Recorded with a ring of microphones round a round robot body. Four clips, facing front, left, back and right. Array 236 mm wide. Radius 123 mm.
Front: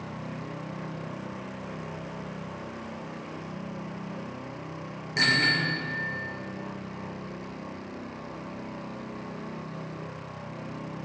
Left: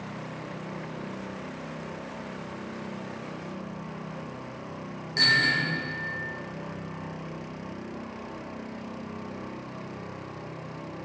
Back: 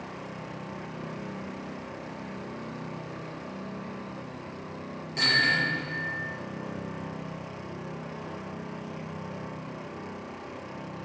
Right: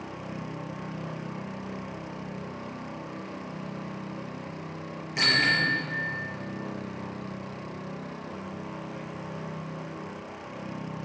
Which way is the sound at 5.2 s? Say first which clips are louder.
Even, front 1 dB; 20° left.